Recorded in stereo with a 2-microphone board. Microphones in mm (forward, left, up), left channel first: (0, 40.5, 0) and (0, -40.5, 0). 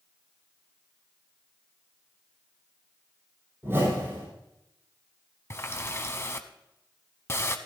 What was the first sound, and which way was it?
A whoosh, 30° right (ahead or behind).